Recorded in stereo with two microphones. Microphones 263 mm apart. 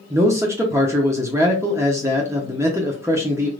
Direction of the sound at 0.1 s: 10° right (ahead or behind).